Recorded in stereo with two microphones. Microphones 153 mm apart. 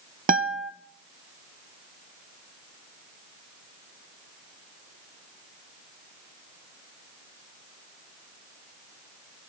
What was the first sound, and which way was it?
A guitar, 65° right (ahead or behind).